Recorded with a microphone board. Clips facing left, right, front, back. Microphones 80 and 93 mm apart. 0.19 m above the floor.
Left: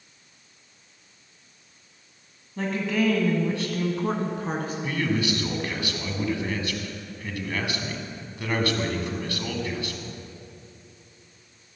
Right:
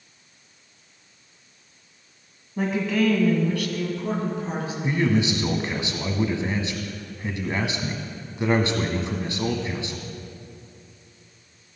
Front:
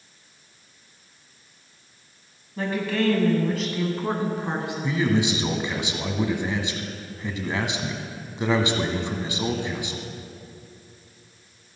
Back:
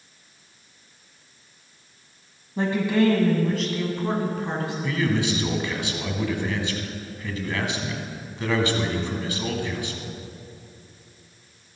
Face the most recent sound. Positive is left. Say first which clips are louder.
# right 5 dB, front 2 dB
turn(degrees=-50)